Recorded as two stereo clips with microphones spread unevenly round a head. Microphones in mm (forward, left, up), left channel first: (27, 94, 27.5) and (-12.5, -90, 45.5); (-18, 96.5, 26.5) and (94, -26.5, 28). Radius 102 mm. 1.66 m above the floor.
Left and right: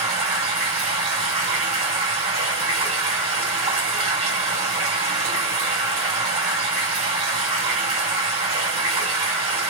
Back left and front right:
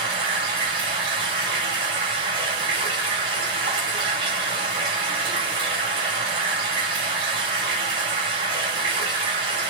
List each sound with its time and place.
0.0 s running water: 95° right, 1.6 m